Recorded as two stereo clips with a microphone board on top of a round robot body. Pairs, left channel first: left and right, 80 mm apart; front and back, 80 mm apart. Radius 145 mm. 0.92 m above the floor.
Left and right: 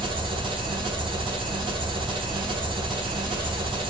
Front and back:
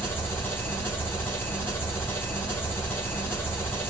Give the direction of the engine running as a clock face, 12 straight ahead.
2 o'clock.